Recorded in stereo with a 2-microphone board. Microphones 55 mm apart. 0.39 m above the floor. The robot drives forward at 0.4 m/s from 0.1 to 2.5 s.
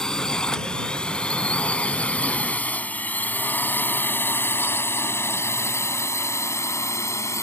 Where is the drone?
10° left (ahead or behind); by 7.4 s 70° left (ahead or behind).